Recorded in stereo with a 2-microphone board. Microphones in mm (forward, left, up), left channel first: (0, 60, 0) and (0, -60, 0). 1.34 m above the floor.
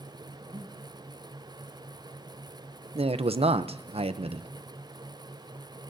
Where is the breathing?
70° right (ahead or behind), 9 m.